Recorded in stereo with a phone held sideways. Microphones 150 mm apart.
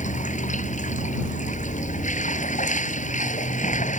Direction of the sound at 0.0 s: 55° left (ahead or behind).